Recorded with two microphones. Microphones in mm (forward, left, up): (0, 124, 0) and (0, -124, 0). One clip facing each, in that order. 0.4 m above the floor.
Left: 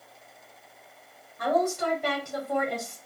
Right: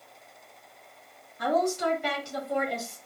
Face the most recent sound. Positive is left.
turn(degrees=55)  # may be behind; listen again after turning